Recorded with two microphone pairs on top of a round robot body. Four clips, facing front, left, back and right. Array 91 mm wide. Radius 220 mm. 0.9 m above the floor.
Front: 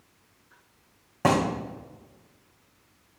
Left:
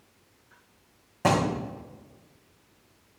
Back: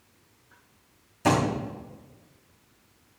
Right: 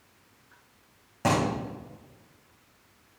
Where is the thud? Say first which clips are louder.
Left 2 dB, even; 5° left, 3 m.